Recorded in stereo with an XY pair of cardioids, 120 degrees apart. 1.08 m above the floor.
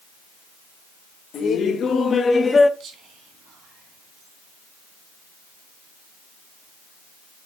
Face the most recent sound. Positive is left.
turn(degrees=-60)